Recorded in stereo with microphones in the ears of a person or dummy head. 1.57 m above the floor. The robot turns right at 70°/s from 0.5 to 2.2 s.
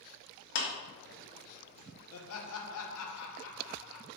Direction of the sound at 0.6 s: 55° left (ahead or behind).